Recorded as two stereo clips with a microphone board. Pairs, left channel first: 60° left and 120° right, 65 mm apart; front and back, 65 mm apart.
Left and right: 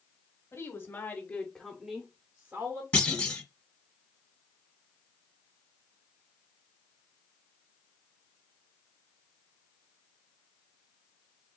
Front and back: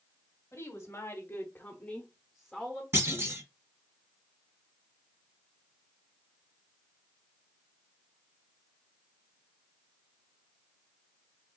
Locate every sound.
0.5 s a woman speaking: 30° left, 1.5 m; by 2.8 s 105° right, 1.3 m
2.9 s a clunk: 130° left, 1.4 m